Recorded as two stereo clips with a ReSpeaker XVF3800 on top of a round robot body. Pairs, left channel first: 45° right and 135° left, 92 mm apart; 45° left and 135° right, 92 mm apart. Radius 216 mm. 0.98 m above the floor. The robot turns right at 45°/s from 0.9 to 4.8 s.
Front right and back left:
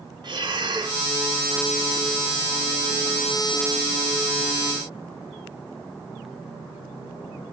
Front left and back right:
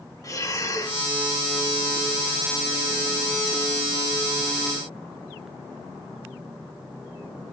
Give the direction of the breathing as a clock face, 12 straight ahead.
9 o'clock.